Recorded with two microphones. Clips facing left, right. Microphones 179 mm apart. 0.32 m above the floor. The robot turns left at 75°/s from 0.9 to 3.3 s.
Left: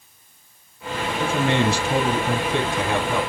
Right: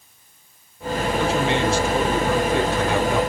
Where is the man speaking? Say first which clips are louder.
Left 2 dB; 130° left, 2.5 m; by 3.2 s 20° right, 2.5 m.